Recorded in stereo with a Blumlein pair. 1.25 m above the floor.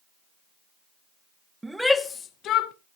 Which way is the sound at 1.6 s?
10° right.